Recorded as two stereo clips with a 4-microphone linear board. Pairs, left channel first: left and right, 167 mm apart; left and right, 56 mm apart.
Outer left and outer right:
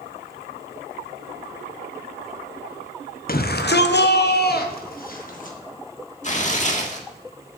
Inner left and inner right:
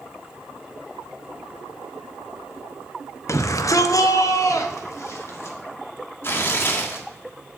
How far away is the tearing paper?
About 1.5 m.